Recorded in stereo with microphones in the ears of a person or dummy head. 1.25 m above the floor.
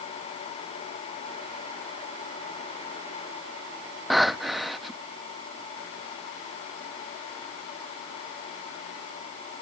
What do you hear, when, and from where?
4.1 s breathing: 5° right (ahead or behind)